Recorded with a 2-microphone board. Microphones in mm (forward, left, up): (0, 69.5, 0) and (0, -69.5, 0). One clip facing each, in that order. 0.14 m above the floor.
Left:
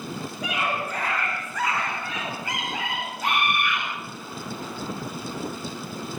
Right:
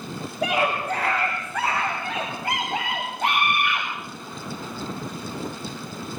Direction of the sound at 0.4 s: 80° right.